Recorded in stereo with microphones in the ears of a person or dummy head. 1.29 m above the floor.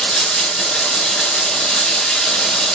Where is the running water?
5° left (ahead or behind), 1.1 m.